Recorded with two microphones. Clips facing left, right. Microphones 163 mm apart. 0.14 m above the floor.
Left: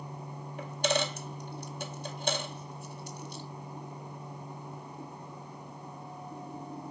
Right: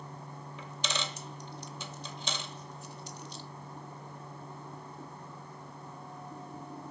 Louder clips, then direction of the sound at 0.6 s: Left 9 dB; 55° left (ahead or behind).